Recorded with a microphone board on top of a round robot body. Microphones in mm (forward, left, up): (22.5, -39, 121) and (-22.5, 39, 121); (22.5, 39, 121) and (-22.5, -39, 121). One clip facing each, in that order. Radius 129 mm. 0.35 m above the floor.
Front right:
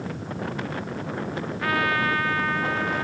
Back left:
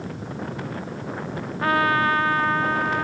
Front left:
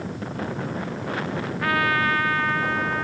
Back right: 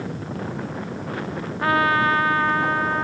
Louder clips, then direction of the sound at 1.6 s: Back left 4 dB, back right 4 dB; straight behind.